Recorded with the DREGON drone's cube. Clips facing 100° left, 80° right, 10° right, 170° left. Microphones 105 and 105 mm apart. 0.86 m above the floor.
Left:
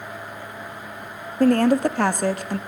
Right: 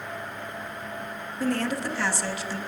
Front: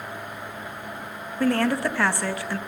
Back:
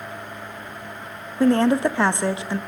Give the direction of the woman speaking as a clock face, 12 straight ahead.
8 o'clock.